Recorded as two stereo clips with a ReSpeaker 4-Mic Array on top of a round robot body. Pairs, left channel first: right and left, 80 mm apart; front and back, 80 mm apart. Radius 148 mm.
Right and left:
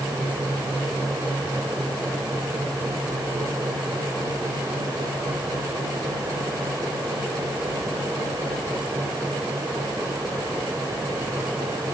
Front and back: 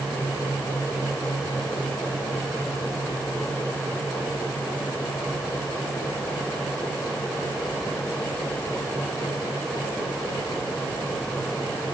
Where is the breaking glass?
I don't hear breaking glass.